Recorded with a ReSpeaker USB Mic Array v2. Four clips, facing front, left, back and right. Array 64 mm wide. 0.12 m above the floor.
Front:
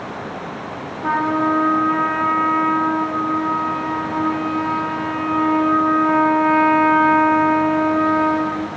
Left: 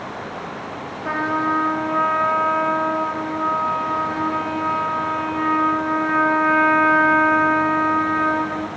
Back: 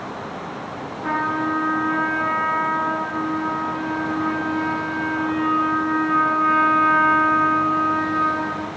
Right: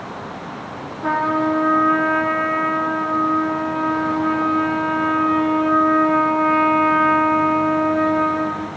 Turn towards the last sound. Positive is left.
turn(degrees=-80)